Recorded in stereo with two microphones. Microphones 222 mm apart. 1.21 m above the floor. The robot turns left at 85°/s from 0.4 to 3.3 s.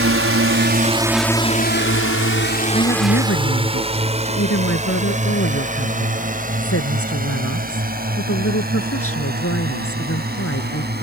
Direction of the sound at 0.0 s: 70° right (ahead or behind).